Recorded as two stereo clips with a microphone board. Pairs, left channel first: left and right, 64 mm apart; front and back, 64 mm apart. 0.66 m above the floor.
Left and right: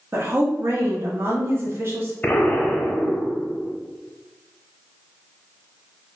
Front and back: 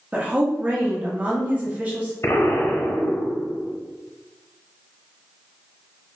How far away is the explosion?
About 0.7 m.